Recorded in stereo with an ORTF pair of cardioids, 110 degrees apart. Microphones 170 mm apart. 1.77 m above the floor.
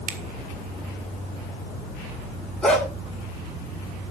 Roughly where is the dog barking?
Ahead.